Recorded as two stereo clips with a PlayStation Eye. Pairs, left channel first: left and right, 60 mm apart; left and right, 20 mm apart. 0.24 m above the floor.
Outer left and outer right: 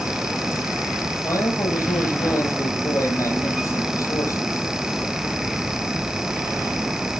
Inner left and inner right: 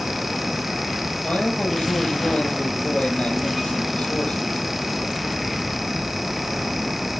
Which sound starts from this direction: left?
A man speaking, at 1.2 s.